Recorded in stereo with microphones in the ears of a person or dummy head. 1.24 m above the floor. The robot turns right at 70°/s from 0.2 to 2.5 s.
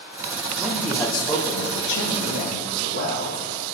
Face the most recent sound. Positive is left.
turn(degrees=120)